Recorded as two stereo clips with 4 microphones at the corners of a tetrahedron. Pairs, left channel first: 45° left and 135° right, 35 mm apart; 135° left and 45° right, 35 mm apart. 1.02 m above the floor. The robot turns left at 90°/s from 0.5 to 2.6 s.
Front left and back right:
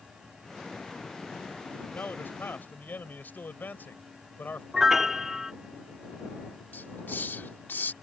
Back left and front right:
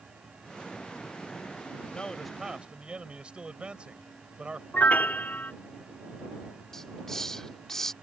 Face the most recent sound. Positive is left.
turn(degrees=60)